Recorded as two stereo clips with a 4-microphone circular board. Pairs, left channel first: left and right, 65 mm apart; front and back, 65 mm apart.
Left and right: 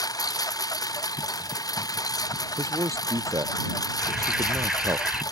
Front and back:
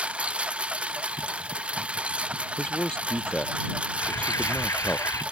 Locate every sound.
0.0 s a lawn mower: 110° left
2.6 s a man speaking: 75° right
4.0 s an alarm: 10° right